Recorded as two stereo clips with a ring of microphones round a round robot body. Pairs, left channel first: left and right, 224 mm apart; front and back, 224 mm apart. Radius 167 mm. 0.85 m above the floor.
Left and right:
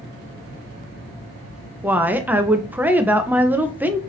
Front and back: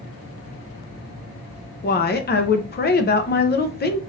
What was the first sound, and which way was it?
A woman speaking, 10° right.